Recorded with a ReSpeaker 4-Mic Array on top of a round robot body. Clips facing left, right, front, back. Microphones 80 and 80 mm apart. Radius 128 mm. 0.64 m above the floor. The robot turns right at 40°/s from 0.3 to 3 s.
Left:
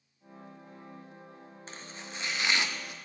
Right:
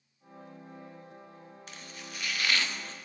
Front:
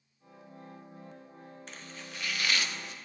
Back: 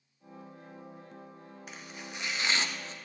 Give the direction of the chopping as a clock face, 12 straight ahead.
8 o'clock.